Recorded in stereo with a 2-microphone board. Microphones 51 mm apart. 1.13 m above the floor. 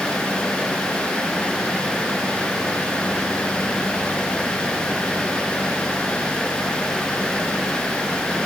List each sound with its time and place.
Only background noise.